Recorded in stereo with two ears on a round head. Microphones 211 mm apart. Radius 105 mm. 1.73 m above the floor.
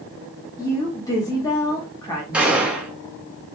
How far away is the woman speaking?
About 0.7 m.